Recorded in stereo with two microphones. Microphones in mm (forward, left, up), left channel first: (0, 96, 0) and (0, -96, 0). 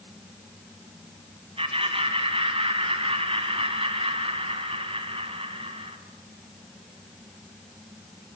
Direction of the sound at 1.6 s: 30° right (ahead or behind).